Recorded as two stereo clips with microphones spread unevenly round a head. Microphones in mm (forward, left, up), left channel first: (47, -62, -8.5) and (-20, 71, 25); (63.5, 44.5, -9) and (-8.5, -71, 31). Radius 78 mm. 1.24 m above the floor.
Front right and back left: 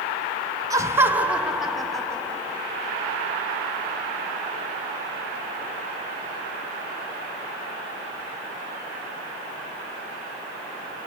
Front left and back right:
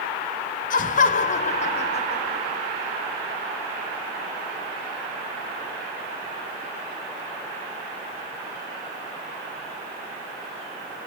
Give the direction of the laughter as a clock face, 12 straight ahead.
10 o'clock.